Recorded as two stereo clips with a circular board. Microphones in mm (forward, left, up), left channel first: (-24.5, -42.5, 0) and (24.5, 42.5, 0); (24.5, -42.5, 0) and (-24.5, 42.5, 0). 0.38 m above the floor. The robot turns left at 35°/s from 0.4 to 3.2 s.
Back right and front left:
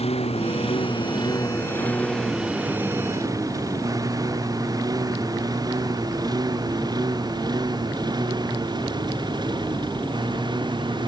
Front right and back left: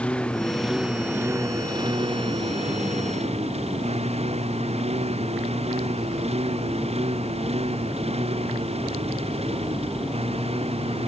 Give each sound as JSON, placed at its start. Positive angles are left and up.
{"t": 0.0, "sound": "a lawn mower", "azimuth_deg": -140}